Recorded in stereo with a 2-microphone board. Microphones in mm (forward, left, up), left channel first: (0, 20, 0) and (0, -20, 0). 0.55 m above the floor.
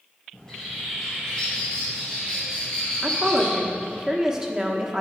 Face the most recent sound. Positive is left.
turn(degrees=-15)  # may be behind; listen again after turning